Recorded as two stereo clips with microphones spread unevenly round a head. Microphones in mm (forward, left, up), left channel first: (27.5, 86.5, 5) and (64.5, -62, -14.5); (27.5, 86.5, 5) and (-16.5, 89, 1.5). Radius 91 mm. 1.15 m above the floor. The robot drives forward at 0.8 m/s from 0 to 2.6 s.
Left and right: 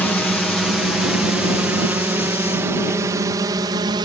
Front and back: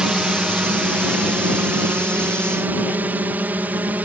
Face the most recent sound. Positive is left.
turn(degrees=-135)